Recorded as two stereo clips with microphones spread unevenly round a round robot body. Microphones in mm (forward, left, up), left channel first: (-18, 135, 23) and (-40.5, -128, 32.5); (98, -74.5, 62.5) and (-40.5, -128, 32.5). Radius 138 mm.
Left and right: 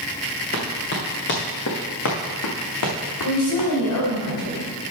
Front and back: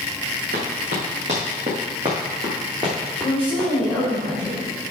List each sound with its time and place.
0.5 s running footsteps: 140° left, 2.5 m; by 4.1 s 100° left, 3 m
3.2 s a woman speaking: 110° left, 4 m